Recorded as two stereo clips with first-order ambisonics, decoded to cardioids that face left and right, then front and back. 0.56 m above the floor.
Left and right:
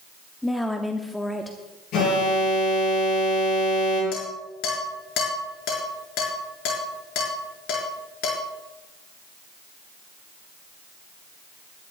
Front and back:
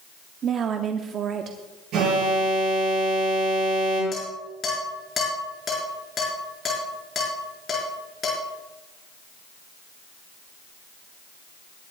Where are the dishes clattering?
70° left, 5 m.